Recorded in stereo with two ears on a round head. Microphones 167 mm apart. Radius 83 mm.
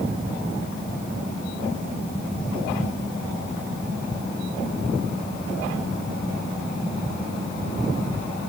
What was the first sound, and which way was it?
Only background noise.